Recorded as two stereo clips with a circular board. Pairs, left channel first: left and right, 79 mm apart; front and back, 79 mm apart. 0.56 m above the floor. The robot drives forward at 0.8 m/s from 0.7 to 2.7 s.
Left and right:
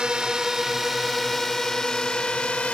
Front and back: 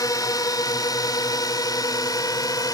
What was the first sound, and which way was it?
A drone, 15° right.